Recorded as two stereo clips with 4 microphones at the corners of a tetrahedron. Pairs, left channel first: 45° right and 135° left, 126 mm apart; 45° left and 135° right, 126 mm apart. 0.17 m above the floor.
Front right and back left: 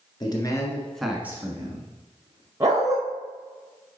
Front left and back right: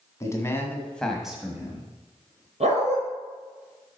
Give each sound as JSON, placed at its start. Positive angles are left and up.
{"t": 0.2, "sound": "a man speaking", "azimuth_deg": -10, "distance_m": 1.8}
{"t": 2.6, "sound": "a dog barking", "azimuth_deg": -160, "distance_m": 2.5}